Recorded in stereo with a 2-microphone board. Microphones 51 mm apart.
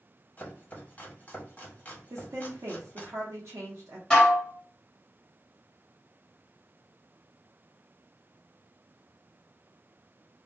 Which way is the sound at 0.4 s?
30° left (ahead or behind).